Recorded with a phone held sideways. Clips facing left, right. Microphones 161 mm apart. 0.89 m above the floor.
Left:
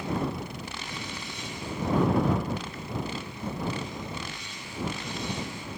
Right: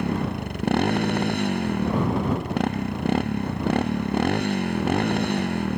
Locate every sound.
0.0 s a motorcycle: 65° right (ahead or behind)